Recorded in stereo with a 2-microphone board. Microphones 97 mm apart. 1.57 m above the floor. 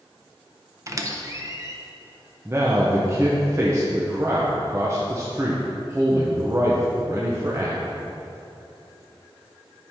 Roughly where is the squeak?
Right.